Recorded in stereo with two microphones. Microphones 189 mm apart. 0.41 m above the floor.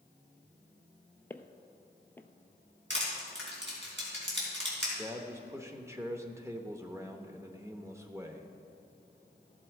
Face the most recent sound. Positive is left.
turn(degrees=-15)  # may be behind; listen again after turning